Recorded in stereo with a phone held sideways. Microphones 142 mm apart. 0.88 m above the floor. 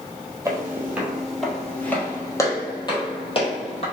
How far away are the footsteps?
About 1.4 m.